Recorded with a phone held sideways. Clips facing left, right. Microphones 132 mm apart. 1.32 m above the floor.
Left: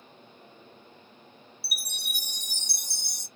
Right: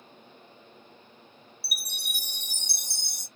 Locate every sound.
1.6 s a chime: 55° right (ahead or behind), 1.6 m